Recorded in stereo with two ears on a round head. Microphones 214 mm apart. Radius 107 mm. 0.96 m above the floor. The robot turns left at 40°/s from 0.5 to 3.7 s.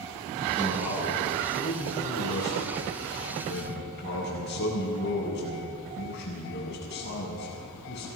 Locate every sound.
0.6 s a man speaking: 175° left, 8.5 m; by 8.1 s 50° left, 8.5 m